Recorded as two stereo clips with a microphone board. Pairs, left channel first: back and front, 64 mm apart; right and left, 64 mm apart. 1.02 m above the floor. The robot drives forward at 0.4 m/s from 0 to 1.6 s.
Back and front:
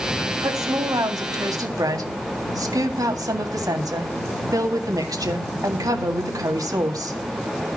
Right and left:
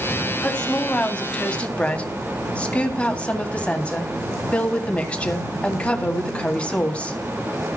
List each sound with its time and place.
0.4 s a woman speaking: 15° right, 2.5 m; by 7.2 s 20° right, 1.9 m